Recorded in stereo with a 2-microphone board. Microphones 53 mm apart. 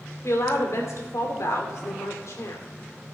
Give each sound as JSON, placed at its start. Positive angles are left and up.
{"t": 0.2, "sound": "a woman speaking", "side_deg": 65, "distance_m": 2.5}